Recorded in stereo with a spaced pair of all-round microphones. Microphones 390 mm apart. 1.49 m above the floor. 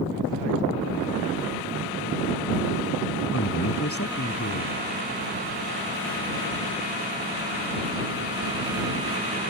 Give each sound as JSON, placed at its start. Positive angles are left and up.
{"t": 3.3, "sound": "a man speaking", "side_deg": 35}